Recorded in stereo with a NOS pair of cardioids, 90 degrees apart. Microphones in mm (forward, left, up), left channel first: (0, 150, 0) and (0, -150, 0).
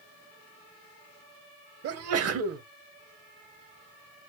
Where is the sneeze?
55° right, 1.3 m.